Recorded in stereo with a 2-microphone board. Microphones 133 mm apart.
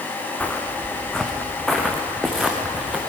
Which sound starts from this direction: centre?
Footsteps, at 0.4 s.